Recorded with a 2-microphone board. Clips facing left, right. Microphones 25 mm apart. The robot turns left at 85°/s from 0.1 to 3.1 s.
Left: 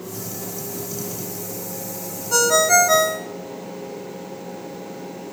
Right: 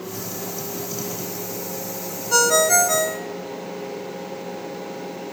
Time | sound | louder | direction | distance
2.3 | a ringtone | left 1 dB | 165° right | 0.6 m